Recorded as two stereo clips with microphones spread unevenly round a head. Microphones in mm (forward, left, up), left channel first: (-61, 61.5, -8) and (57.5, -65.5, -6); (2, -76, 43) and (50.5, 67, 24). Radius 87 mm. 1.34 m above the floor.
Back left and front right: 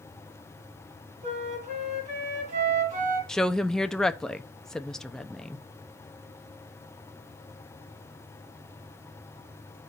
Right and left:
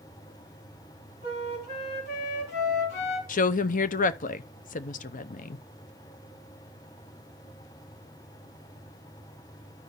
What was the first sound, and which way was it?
A flute, 95° right.